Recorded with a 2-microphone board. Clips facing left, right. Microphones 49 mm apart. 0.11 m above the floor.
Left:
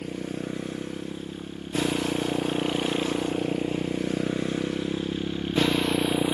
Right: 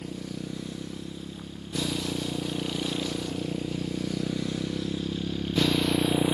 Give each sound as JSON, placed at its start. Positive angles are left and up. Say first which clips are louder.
{"t": 0.0, "sound": "a motorcycle", "louder": "left 4 dB", "side_deg": 40}